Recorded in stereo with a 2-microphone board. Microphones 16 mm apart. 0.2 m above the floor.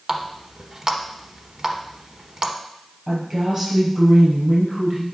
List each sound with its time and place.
0.1 s a running tap: 40° right (ahead or behind), 1.0 m
3.1 s a woman speaking: 20° right (ahead or behind), 4 m